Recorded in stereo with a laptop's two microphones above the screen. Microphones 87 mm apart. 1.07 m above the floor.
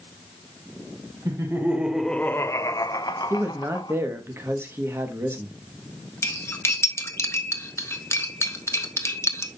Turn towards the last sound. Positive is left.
turn(degrees=30)  # may be behind; listen again after turning